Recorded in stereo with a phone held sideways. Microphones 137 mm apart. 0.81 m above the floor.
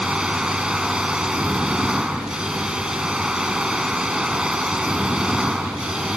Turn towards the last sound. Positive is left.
turn(degrees=-5)  # may be behind; listen again after turning